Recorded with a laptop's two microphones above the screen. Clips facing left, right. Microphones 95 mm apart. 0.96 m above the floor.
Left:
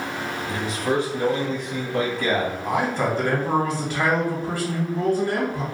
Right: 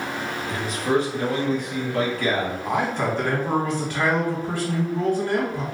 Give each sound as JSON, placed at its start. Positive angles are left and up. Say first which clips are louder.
{"t": 0.5, "sound": "a man speaking", "louder": "right 2 dB", "side_deg": 25, "distance_m": 1.4}
{"t": 2.6, "sound": "a man speaking", "louder": "even", "side_deg": 10, "distance_m": 1.4}